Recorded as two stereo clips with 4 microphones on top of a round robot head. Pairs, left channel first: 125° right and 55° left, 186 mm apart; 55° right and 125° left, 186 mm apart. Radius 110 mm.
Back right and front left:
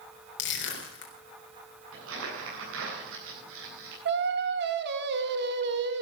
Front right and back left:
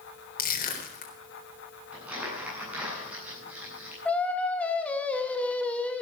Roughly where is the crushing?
Right.